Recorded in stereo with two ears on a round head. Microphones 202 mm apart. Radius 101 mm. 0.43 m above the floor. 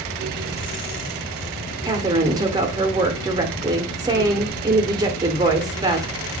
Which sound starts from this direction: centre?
A woman speaking, at 1.9 s.